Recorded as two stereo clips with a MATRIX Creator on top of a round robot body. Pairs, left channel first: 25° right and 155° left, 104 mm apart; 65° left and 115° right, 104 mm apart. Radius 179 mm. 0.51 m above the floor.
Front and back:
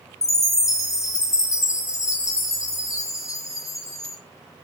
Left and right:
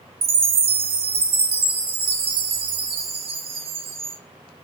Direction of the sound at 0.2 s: 85° right.